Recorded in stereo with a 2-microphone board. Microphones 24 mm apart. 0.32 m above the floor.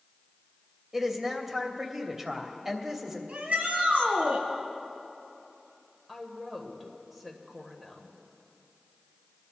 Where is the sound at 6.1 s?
Centre (ahead or behind), 1.5 m.